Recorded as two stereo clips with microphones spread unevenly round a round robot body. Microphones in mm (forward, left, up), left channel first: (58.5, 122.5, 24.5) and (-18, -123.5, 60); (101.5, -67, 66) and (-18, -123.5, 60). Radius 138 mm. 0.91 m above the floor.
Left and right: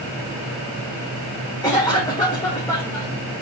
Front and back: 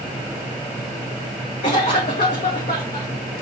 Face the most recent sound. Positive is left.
turn(degrees=0)